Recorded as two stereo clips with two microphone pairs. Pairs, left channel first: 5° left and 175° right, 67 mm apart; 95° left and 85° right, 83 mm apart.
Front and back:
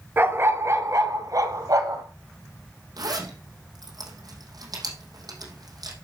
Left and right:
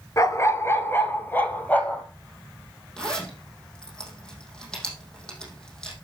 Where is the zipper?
175° left, 4 m.